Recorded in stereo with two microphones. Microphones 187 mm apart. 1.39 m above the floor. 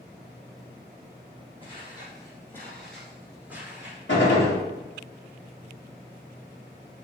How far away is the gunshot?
About 1.8 m.